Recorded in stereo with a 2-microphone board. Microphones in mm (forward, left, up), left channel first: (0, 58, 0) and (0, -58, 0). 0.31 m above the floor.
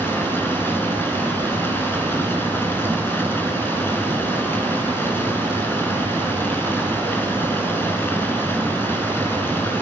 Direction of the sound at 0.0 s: 20° left (ahead or behind).